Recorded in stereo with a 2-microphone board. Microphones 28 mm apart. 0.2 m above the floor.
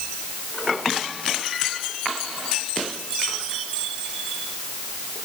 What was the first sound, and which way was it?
Only background noise.